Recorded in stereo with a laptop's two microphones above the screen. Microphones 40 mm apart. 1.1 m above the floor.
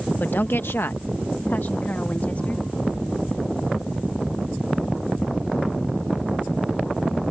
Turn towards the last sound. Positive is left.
turn(degrees=35)  # may be behind; listen again after turning